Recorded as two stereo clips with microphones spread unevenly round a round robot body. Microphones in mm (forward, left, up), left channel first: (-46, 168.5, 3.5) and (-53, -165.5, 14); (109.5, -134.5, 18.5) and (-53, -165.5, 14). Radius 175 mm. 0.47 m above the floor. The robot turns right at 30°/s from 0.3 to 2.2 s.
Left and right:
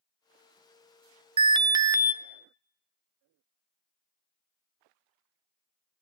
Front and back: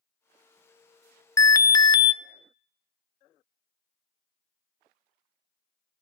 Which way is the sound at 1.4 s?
35° right.